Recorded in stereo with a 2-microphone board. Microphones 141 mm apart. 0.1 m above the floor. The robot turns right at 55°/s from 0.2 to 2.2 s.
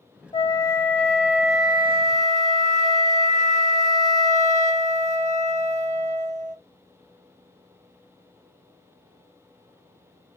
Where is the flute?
135° left, 0.9 m; by 6.6 s 120° right, 0.9 m.